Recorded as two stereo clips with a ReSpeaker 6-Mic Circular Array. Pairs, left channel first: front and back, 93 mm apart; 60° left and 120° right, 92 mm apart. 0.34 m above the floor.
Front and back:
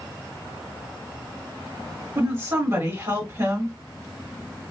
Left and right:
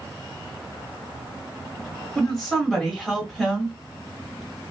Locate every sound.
2.1 s a woman speaking: 145° left, 1.7 m